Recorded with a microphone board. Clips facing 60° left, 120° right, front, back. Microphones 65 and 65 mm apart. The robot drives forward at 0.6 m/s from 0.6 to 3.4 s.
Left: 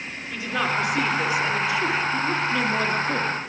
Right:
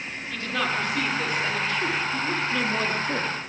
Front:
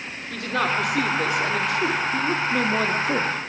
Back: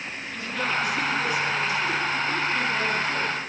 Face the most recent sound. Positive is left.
turn(degrees=-30)